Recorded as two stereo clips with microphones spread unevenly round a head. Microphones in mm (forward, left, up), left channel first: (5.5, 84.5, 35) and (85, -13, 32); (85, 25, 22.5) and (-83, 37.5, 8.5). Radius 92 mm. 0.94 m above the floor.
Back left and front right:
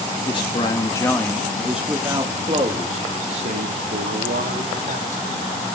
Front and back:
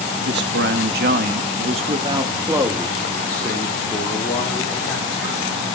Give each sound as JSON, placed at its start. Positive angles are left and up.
{"t": 0.2, "sound": "a man speaking", "azimuth_deg": 180, "distance_m": 1.8}